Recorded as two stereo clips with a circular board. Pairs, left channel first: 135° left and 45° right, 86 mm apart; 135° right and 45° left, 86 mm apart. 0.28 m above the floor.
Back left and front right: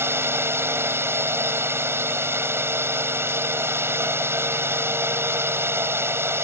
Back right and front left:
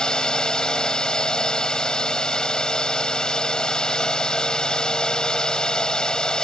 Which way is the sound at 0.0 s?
65° right.